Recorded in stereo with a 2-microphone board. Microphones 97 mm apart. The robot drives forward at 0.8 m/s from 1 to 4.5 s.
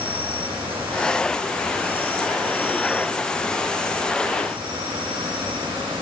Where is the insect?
75° right (ahead or behind), 6.5 m; by 6.0 s 60° right (ahead or behind), 7.5 m.